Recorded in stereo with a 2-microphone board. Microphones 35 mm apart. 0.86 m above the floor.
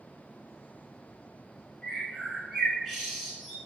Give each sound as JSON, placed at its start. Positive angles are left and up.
{"t": 1.8, "sound": "a bird", "side_deg": 5, "distance_m": 1.9}